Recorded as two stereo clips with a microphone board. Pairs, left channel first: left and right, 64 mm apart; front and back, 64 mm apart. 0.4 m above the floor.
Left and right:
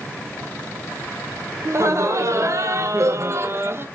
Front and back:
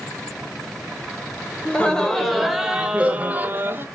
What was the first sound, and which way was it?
Laughter, 65° right.